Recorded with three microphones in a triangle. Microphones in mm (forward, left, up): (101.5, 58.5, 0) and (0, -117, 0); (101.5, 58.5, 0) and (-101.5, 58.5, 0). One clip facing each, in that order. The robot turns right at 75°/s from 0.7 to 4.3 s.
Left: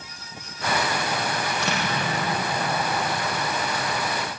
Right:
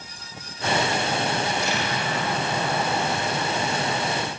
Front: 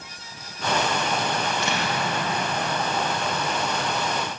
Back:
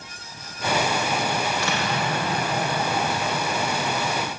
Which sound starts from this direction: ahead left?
An explosion, at 1.4 s.